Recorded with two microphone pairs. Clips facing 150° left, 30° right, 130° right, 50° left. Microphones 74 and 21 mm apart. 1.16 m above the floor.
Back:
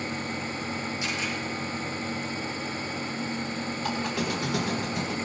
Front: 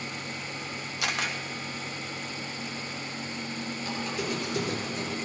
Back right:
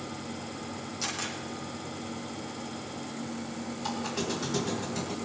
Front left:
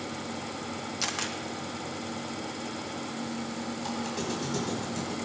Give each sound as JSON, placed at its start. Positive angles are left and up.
{"t": 1.0, "sound": "a camera shutter", "azimuth_deg": -10, "distance_m": 1.8}
{"t": 3.8, "sound": "a squeak", "azimuth_deg": 150, "distance_m": 3.5}